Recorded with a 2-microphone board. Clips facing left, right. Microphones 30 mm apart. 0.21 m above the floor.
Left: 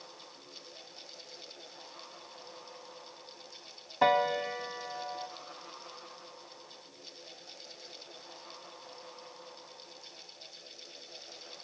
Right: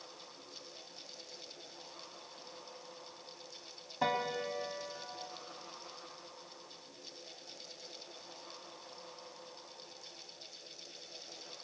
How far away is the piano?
About 0.9 m.